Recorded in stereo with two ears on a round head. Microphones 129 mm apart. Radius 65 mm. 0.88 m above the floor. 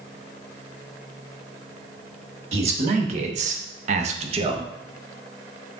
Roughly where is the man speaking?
Right.